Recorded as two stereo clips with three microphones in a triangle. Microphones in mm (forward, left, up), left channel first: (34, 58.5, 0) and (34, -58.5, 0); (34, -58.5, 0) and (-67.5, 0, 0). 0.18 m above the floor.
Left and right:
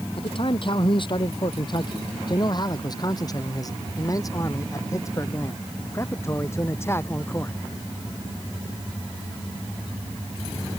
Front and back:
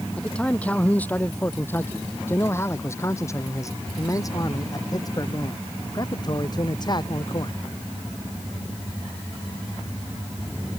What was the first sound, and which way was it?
A man speaking, 50° left.